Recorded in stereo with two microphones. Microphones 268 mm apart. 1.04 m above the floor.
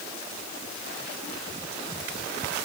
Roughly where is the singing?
No singing in this recording.